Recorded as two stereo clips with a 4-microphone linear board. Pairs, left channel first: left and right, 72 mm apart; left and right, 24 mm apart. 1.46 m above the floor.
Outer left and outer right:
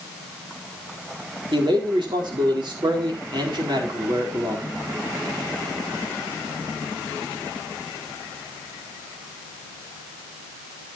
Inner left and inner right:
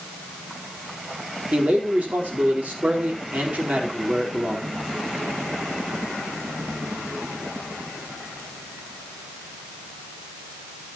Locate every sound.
1.5 s a man speaking: 85° right, 4.5 m